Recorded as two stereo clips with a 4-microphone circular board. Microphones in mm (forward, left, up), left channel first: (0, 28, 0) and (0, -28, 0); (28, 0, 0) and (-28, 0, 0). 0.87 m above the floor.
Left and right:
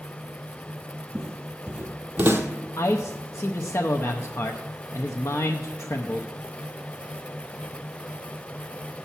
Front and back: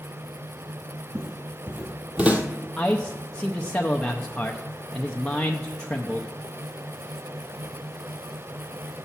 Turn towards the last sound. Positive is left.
turn(degrees=70)